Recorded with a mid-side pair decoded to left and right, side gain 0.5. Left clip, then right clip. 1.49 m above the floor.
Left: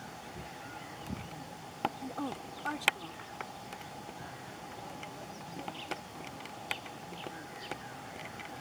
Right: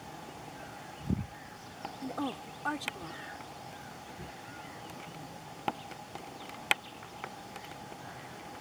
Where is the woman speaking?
20° right.